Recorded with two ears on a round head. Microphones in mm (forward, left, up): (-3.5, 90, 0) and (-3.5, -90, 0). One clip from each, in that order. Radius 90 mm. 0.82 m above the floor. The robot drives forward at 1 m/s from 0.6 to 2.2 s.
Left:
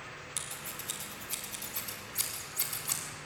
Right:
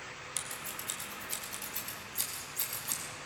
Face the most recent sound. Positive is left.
turn(degrees=-10)  # may be behind; listen again after turning